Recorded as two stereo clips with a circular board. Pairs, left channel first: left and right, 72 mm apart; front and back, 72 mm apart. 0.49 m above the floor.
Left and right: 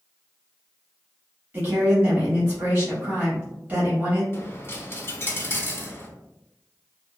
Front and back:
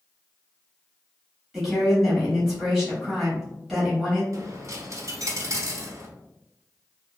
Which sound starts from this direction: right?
A woman speaking, at 1.5 s.